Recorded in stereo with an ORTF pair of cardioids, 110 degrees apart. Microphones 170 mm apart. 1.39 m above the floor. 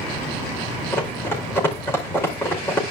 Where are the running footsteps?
10° left, 5 m.